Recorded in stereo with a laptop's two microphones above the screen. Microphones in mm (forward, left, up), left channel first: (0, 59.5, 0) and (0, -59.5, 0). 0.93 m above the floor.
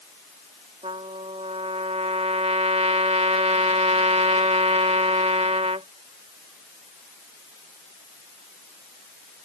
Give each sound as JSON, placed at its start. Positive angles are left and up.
{"t": 0.8, "sound": "a trumpet", "side_deg": -65}